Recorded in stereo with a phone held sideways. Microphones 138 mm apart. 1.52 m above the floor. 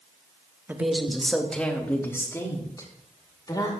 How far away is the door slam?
No door slam in this recording.